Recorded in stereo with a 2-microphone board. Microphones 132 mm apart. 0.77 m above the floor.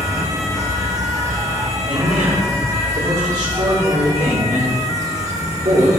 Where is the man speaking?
65° right (ahead or behind), 2.5 m.